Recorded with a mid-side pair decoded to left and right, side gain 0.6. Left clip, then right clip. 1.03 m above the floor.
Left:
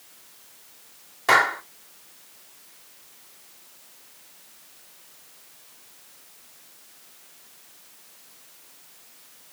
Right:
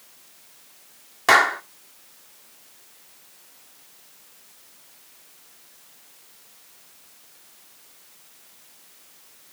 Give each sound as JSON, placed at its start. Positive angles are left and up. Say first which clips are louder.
{"t": 1.3, "sound": "a clap", "louder": "right 2 dB", "azimuth_deg": -40, "distance_m": 2.5}